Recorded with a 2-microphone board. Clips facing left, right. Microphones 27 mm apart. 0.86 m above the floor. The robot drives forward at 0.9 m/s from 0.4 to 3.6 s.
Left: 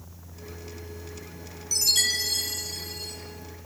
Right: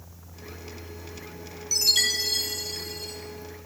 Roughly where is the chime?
Centre.